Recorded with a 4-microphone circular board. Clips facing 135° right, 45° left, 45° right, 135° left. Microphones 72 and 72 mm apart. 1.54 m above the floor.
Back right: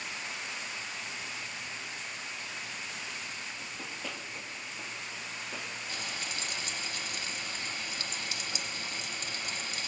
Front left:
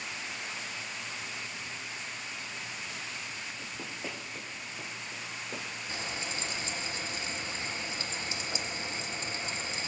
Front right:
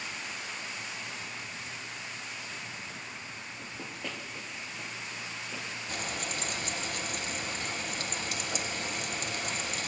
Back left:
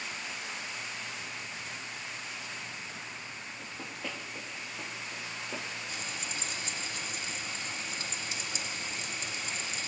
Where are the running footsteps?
20° left, 1.6 m; by 5.7 s 85° left, 1.9 m.